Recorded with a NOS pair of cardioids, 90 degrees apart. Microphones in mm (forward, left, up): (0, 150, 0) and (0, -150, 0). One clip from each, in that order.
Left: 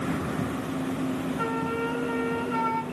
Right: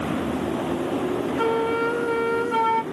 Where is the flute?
50° right, 1.8 m.